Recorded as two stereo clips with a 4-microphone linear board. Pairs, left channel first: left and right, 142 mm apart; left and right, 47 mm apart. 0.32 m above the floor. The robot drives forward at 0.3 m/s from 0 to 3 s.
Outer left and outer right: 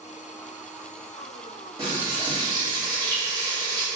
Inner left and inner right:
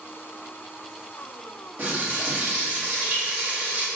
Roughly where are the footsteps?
I don't hear footsteps.